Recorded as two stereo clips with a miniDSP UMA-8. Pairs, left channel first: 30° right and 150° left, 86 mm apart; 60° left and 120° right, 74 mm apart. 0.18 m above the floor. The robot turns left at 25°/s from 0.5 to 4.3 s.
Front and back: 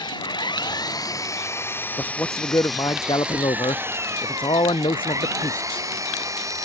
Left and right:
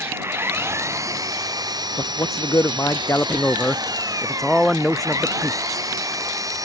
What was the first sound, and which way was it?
An engine running, 65° right.